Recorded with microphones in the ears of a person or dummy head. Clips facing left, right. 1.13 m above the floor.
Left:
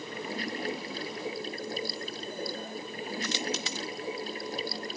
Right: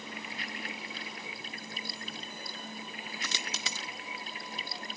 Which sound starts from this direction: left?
Running water, at 0.0 s.